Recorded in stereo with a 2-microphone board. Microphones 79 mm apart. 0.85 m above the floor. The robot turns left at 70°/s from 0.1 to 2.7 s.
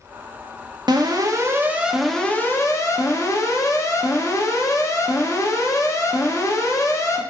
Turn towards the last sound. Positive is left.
turn(degrees=135)